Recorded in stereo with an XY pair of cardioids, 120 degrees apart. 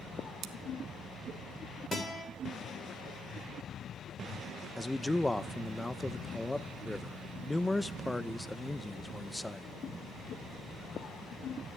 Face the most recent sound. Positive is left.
turn(degrees=10)